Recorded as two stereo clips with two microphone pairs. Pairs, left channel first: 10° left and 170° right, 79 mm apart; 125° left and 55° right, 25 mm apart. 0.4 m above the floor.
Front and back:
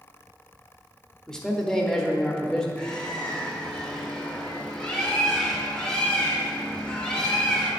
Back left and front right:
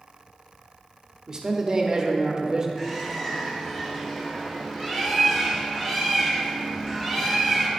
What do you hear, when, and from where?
1.3 s a man speaking: 55° right, 0.8 m
2.8 s a bird: 65° left, 1.4 m